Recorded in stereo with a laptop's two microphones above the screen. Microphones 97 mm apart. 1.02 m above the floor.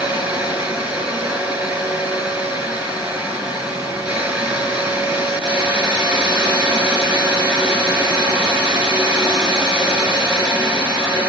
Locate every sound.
0.0 s a fan: 15° right (ahead or behind), 4 m